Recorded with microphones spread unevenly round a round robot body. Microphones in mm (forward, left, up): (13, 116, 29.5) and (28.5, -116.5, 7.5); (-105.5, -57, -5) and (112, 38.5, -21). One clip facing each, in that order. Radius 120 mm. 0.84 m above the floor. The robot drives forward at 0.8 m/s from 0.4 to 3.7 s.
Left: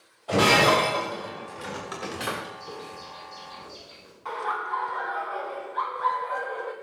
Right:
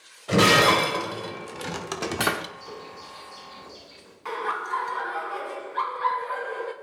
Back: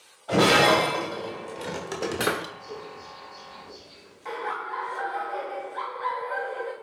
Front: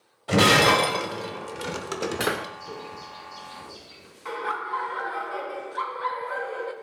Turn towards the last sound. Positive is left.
turn(degrees=-50)